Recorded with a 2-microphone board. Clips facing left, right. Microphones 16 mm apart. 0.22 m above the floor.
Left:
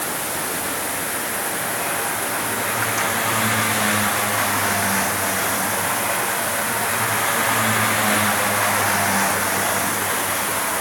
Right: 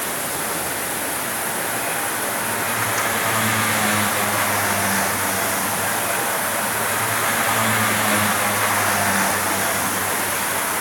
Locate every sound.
Only background noise.